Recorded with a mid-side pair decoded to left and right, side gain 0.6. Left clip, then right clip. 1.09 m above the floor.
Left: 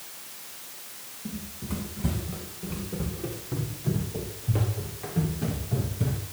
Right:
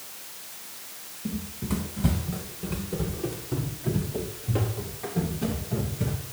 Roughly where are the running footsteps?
Ahead.